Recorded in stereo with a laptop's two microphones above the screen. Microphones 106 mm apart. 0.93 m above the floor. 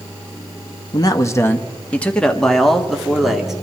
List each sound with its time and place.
0.9 s a man speaking: 40° left (ahead or behind), 0.9 m; by 3.5 s 5° right (ahead or behind), 2.5 m